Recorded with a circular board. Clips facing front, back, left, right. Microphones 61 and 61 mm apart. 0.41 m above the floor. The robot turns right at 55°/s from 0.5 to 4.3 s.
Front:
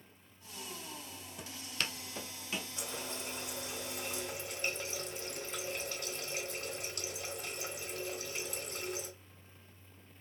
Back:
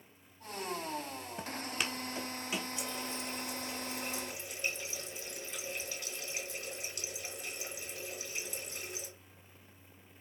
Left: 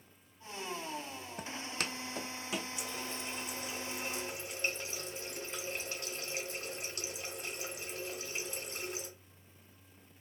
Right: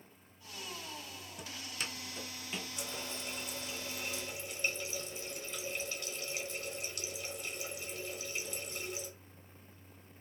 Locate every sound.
1.4 s footsteps: 130° left, 0.7 m; by 2.7 s 110° left, 1.5 m
2.8 s a running tap: 40° right, 2 m; by 9.1 s 45° left, 2 m